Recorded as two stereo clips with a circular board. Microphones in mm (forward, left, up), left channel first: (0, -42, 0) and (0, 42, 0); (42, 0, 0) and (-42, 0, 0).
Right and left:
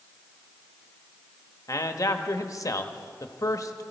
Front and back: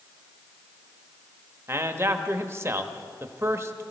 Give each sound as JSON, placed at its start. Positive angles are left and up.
{"t": 1.7, "sound": "a man speaking", "azimuth_deg": -130, "distance_m": 0.9}